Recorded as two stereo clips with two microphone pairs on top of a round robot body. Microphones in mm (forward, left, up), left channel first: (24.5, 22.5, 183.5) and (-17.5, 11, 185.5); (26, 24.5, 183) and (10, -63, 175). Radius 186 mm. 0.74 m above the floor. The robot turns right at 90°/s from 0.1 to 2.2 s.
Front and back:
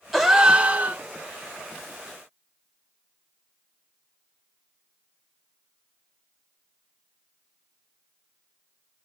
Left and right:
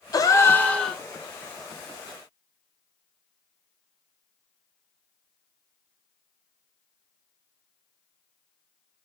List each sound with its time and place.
0.1 s a gasp: 100° left, 0.9 m; by 1.0 s straight behind, 0.9 m